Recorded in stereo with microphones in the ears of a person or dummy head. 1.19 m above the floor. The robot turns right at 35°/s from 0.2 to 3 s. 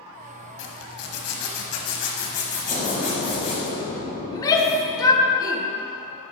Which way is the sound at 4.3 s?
15° left (ahead or behind).